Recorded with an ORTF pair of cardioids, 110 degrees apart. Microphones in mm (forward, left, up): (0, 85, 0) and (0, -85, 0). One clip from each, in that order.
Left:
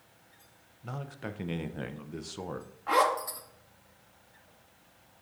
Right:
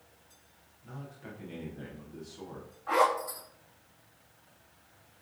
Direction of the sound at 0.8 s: 60° left.